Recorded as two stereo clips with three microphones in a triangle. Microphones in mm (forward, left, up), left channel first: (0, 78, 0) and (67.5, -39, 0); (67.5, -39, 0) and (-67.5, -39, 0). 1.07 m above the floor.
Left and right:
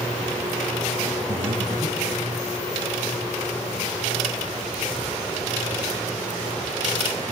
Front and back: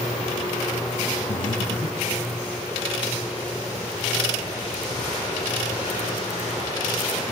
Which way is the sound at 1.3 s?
10° right.